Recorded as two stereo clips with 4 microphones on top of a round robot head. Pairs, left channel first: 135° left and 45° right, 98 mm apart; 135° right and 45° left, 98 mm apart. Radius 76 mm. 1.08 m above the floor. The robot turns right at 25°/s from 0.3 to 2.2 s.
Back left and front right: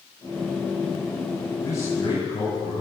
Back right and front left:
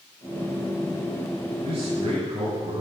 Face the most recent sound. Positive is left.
turn(degrees=85)